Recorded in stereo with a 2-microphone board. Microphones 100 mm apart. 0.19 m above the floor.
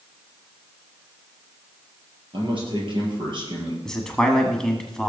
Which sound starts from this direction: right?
A man speaking, at 2.3 s.